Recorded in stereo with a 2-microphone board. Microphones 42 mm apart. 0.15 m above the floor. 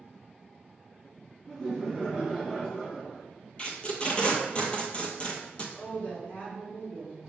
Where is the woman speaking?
30° left (ahead or behind), 1.3 m.